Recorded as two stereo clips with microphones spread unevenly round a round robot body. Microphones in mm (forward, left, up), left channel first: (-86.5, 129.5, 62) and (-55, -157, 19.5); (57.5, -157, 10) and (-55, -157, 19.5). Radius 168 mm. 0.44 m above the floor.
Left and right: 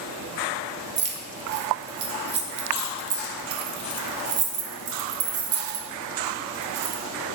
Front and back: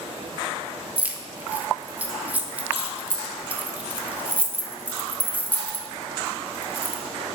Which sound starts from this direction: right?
Keys jangling, at 1.0 s.